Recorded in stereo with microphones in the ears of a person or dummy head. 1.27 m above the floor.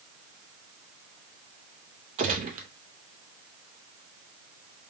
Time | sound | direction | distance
2.2 | a gunshot | 40° right (ahead or behind) | 0.7 m